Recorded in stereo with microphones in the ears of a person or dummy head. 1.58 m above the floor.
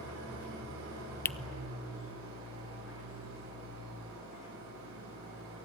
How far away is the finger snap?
About 0.6 m.